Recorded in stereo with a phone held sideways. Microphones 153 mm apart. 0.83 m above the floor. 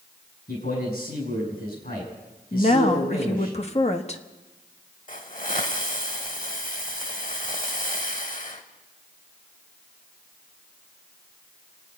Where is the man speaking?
75° left (ahead or behind), 6.5 m.